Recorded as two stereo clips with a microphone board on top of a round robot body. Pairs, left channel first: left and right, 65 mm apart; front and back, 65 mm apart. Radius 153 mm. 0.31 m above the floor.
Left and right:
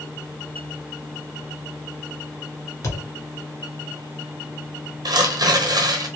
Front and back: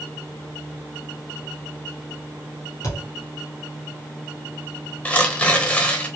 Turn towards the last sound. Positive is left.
turn(degrees=-70)